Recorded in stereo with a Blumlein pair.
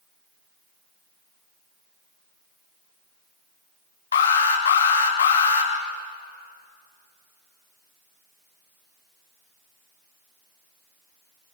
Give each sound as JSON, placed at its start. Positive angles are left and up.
{"t": 4.1, "sound": "an alarm", "azimuth_deg": 65, "distance_m": 2.5}